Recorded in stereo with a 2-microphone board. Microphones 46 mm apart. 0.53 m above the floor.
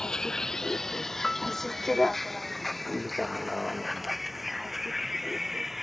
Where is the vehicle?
15° left (ahead or behind); by 5.8 s 5° right (ahead or behind).